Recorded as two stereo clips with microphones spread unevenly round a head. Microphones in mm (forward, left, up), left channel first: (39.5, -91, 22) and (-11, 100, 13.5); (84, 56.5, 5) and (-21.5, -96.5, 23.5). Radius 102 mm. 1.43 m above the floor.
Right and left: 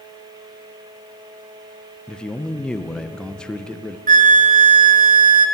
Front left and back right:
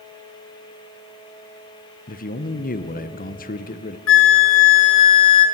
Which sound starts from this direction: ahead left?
A flute, at 4.1 s.